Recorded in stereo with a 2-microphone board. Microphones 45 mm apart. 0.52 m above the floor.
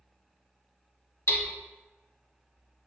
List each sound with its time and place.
1.3 s hammering: 60° left (ahead or behind), 0.6 m